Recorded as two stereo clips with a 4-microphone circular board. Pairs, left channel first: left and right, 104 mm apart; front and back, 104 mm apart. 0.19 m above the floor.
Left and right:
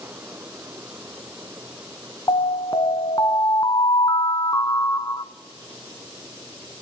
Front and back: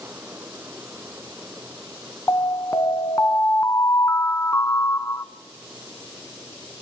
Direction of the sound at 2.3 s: 55° left.